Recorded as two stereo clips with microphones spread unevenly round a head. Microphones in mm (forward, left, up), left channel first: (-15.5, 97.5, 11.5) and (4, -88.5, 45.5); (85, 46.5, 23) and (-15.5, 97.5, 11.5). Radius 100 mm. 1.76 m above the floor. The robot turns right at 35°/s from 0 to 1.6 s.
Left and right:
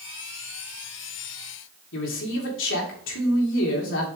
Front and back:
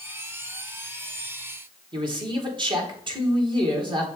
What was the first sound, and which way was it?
A man speaking, 110° left.